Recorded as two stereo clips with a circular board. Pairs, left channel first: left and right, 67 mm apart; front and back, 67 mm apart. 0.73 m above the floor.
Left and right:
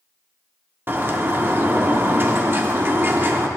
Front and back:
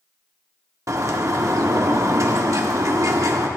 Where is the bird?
145° right, 1.0 m.